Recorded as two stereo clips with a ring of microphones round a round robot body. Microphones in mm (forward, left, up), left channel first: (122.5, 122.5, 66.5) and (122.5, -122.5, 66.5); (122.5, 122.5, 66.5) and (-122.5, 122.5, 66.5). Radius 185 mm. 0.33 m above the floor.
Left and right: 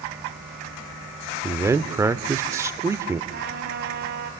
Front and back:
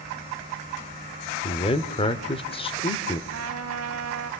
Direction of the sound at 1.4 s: 25° right.